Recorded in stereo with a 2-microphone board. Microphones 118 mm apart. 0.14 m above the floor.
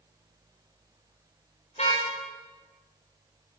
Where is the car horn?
60° left (ahead or behind), 9 m.